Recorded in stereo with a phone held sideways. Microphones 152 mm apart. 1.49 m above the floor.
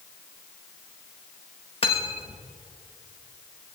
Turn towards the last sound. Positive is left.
turn(degrees=40)  # may be behind; listen again after turning